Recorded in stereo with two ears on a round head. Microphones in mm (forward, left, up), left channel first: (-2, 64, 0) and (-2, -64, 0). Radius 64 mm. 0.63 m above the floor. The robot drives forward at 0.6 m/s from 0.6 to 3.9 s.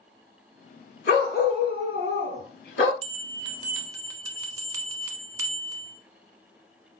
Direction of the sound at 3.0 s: 40° right (ahead or behind).